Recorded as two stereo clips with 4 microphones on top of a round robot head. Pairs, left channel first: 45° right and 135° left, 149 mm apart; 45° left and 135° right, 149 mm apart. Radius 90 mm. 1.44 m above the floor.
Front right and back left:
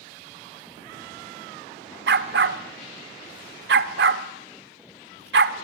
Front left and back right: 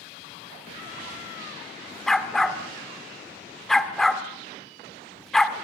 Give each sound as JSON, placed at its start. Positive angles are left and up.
{"t": 2.1, "sound": "a dog barking", "azimuth_deg": 135, "distance_m": 1.5}